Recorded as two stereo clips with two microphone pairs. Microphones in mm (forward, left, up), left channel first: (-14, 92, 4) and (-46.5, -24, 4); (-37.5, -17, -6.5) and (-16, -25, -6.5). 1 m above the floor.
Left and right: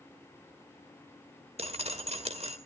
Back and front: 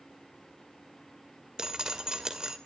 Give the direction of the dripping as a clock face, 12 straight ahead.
3 o'clock.